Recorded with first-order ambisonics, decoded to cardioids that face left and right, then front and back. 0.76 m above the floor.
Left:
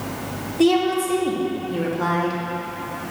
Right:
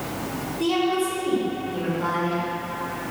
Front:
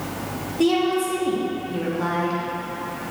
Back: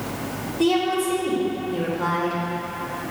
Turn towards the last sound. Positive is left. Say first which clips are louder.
# left 4 dB, front 1 dB
turn(degrees=70)